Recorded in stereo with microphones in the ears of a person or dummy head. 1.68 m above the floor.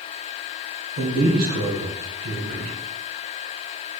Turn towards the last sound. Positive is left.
turn(degrees=-50)  # may be behind; listen again after turning